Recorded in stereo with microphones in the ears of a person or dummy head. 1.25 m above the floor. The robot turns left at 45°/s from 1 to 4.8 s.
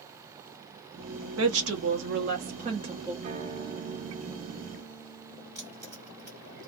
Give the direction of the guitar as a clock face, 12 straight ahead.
4 o'clock.